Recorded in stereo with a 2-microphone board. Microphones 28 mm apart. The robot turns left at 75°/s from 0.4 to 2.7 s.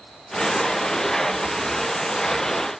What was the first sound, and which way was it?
Only background noise.